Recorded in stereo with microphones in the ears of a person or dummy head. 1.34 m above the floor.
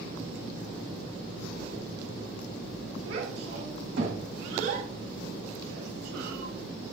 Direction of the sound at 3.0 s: 85° right.